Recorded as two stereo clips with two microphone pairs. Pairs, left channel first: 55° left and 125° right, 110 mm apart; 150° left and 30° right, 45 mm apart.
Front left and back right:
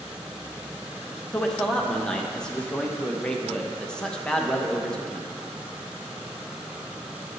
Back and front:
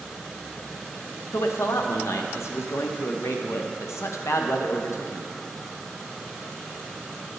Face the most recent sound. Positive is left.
turn(degrees=135)